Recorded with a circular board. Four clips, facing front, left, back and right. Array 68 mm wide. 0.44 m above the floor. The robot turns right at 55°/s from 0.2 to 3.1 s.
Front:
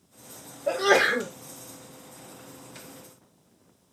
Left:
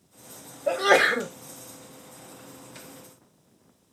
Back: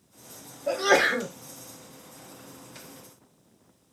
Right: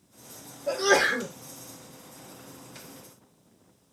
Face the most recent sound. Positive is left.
turn(degrees=-160)